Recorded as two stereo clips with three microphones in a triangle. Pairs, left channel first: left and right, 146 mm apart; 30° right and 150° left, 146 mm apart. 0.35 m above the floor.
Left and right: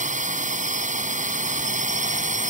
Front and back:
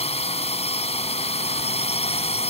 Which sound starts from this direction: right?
A drone, at 0.0 s.